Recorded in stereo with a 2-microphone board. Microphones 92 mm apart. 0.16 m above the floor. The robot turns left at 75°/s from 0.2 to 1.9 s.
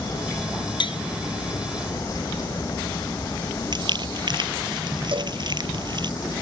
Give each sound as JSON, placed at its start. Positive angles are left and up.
{"t": 0.8, "sound": "tapping", "side_deg": 60}
{"t": 3.7, "sound": "crumpling", "side_deg": -55}
{"t": 5.1, "sound": "a cowbell", "side_deg": -70}